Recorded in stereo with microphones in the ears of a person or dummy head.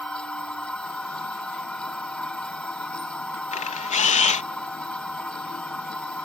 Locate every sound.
0.0 s a machine running: 5° left (ahead or behind)
3.5 s a camera shutter: 40° left (ahead or behind)